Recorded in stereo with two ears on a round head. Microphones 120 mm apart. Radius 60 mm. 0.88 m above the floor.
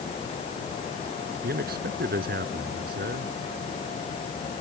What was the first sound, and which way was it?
A man speaking, 80° right.